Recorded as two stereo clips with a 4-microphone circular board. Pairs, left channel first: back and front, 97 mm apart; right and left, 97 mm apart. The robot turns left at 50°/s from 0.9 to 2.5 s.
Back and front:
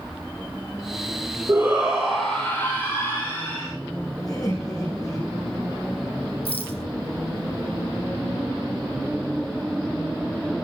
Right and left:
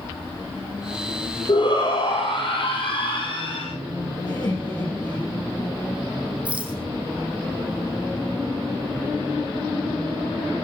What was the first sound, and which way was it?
A shout, 60° right.